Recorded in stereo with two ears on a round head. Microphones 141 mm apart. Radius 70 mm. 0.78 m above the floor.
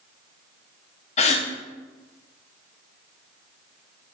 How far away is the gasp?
About 1.0 m.